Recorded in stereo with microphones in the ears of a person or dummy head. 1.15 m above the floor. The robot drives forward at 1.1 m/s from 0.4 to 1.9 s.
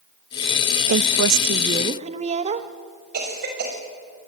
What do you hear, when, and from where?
0.9 s a woman speaking: 70° right (ahead or behind), 0.6 m; by 2.7 s 30° right (ahead or behind), 1.0 m
3.1 s a cough: 50° right (ahead or behind), 6 m